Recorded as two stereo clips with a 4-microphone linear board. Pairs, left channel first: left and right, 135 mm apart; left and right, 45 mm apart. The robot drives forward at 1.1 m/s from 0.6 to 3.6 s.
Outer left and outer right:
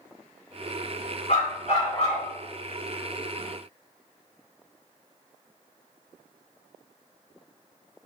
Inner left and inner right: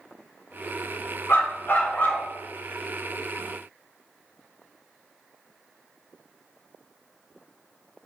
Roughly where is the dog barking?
Left.